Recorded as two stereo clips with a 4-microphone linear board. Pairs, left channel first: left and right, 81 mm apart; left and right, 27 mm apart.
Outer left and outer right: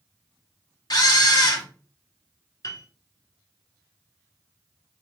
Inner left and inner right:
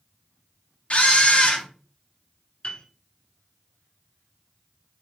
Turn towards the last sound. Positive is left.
turn(degrees=50)  # may be behind; listen again after turning